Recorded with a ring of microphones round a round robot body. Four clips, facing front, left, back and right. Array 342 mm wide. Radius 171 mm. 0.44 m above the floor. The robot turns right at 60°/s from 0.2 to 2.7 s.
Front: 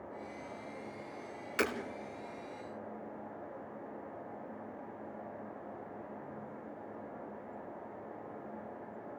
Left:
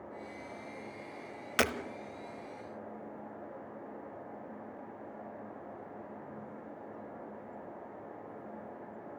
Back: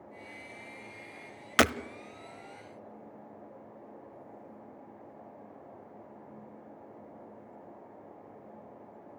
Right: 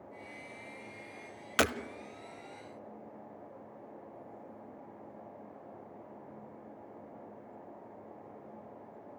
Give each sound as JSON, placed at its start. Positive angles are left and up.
{"t": 1.6, "sound": "breaking glass", "azimuth_deg": -175, "distance_m": 0.6}